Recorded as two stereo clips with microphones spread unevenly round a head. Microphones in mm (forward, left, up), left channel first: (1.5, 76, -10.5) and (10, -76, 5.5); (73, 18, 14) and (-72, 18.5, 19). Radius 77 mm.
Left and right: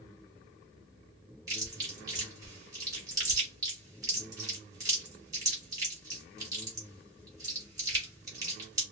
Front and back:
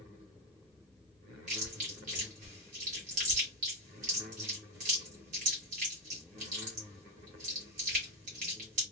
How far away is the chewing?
About 1.6 m.